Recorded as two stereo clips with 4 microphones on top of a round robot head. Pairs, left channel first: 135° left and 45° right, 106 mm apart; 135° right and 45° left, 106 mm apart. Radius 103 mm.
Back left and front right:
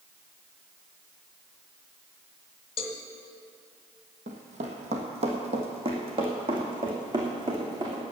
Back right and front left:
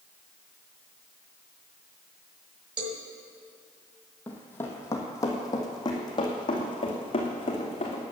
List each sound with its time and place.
2.8 s a cowbell: 95° left, 1.1 m
4.3 s running footsteps: 60° right, 1.7 m; by 8.0 s 95° right, 3.5 m